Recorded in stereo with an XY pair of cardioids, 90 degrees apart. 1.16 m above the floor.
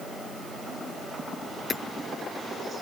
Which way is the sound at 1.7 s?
40° left.